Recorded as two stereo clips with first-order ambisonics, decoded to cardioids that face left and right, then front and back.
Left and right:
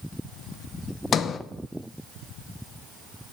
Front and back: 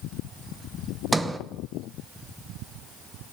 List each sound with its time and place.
1.1 s a sliding door: 105° left, 0.6 m